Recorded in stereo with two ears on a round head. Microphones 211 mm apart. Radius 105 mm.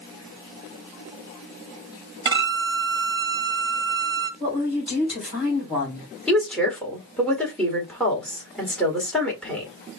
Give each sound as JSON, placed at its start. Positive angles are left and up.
{"t": 2.2, "sound": "a violin", "side_deg": -20, "distance_m": 1.4}
{"t": 4.4, "sound": "a woman speaking", "side_deg": -5, "distance_m": 3.5}
{"t": 6.3, "sound": "a woman speaking", "side_deg": 5, "distance_m": 1.7}